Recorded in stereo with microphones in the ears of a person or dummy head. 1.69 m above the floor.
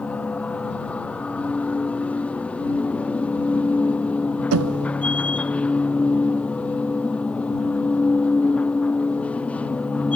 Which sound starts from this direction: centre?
A machine running, at 0.0 s.